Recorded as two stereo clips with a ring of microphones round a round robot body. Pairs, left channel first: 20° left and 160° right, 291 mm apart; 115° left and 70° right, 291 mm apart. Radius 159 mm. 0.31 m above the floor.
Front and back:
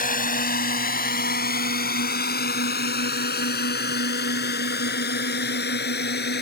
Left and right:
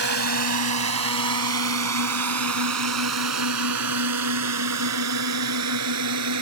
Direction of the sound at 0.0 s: 35° right.